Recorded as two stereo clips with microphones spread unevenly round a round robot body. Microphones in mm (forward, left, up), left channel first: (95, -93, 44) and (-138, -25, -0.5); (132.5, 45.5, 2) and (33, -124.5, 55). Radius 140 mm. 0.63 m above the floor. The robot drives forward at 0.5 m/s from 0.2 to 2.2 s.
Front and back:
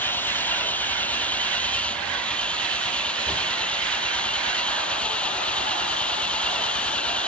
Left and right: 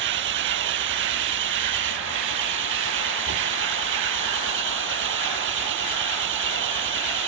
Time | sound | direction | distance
0.0 | an engine running | 100° right | ?